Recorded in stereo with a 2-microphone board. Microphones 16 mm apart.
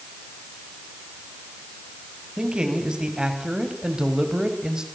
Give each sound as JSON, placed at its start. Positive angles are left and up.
{"t": 2.4, "sound": "a man speaking", "side_deg": -70, "distance_m": 5.0}